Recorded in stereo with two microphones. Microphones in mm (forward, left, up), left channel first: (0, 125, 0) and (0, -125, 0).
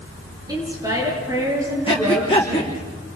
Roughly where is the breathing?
Centre.